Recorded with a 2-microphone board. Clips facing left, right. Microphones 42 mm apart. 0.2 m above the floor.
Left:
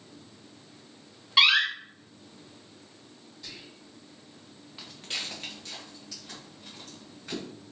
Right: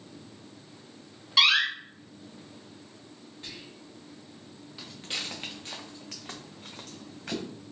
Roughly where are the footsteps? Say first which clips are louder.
Even; centre.